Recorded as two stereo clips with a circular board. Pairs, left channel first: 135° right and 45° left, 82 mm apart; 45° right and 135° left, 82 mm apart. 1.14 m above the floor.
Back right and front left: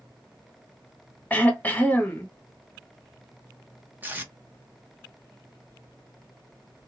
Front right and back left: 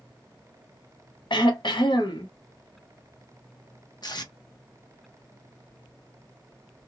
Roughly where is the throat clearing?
Ahead right.